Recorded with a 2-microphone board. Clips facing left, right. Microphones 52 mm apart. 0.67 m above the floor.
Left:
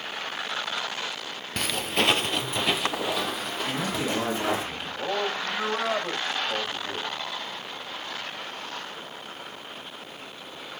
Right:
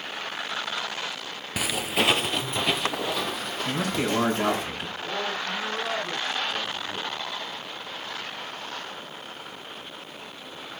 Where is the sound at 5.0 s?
60° left (ahead or behind), 4 m.